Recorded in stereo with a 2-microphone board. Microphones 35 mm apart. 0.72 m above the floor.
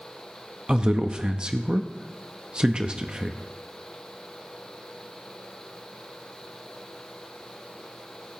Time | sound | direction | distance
0.7 | a man speaking | 25° right (ahead or behind) | 0.6 m